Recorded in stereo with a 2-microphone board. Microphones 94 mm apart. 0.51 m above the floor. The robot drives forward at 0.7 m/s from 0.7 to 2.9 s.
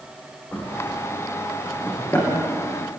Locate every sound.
0.5 s a drawer: 20° left (ahead or behind), 8 m; by 2.3 s 15° left (ahead or behind), 9 m